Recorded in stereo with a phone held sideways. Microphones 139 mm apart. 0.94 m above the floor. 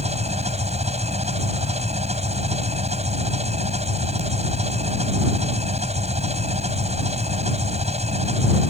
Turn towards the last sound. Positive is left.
turn(degrees=-55)  # may be behind; listen again after turning